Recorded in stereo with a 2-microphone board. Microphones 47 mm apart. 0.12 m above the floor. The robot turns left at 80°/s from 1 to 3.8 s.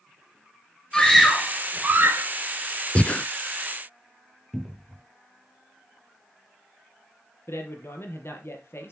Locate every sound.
0.9 s a scream: 15° left, 2.5 m; by 2.2 s 85° right, 2.5 m
3.0 s breathing: 25° left (ahead or behind), 0.5 m; by 3.3 s 30° left (ahead or behind), 0.5 m
4.5 s a cupboard door: centre (ahead or behind), 0.9 m
7.5 s a man speaking: 60° left (ahead or behind), 3.5 m